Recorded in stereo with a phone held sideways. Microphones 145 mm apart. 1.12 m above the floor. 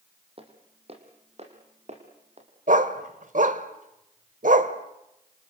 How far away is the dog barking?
About 1.5 m.